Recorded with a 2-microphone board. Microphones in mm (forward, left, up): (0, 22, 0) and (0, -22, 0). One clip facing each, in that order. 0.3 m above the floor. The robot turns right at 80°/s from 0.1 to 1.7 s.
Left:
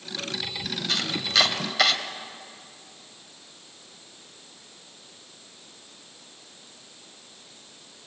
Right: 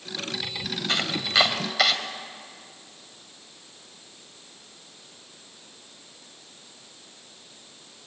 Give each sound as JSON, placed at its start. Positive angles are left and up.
{"t": 0.9, "sound": "chopping", "side_deg": -35, "distance_m": 1.5}